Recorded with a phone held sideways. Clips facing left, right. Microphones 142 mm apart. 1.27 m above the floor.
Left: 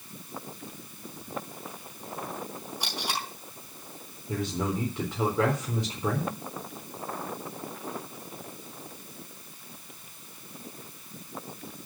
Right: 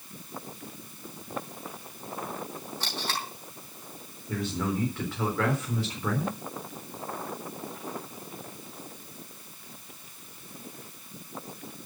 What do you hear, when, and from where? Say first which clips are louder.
2.8 s tape being pulled: left 1 dB; 15° left (ahead or behind), 4 m
4.3 s a man speaking: even; 20° left (ahead or behind), 4 m